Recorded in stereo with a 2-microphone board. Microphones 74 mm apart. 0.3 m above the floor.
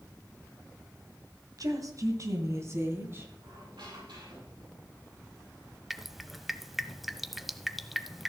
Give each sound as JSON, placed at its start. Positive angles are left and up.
{"t": 1.6, "sound": "a woman speaking", "side_deg": -55, "distance_m": 2.5}
{"t": 3.4, "sound": "a squeak", "side_deg": -85, "distance_m": 6.0}
{"t": 5.9, "sound": "dripping", "side_deg": 0, "distance_m": 0.7}